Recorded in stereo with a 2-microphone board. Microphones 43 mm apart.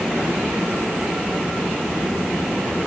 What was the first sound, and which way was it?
Only background noise.